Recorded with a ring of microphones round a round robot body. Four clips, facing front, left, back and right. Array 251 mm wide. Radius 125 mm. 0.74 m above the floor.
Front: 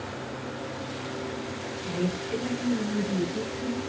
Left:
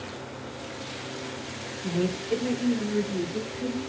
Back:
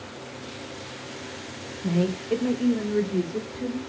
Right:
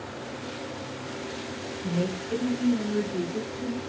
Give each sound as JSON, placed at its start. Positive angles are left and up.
{"t": 1.8, "sound": "a woman speaking", "azimuth_deg": 175, "distance_m": 0.9}